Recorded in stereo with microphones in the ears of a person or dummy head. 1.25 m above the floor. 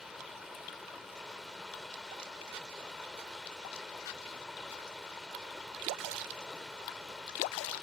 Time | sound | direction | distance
0.0 | running water | centre (ahead or behind) | ?